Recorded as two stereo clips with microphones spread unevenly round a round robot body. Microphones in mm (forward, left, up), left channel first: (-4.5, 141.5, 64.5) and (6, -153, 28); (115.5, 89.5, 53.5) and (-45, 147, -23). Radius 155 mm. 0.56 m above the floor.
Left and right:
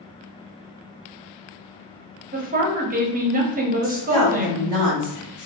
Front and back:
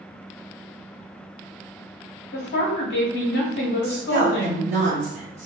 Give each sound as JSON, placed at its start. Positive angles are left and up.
{"t": 2.3, "sound": "a woman speaking", "azimuth_deg": -60, "distance_m": 0.8}
{"t": 3.8, "sound": "a woman speaking", "azimuth_deg": 170, "distance_m": 1.8}